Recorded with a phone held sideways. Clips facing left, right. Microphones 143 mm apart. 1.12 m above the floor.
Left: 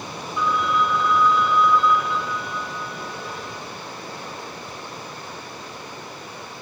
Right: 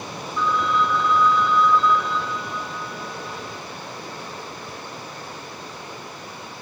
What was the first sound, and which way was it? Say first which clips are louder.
A phone ringing: even; 5° left (ahead or behind).